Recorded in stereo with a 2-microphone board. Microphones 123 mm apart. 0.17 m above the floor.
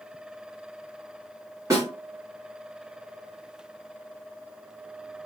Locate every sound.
1.7 s a snare drum: 25° right (ahead or behind), 1.8 m